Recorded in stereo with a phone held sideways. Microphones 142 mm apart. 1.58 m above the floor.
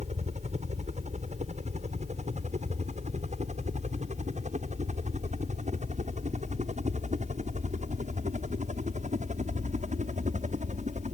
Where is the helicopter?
60° right (ahead or behind); by 11.2 s 70° right (ahead or behind).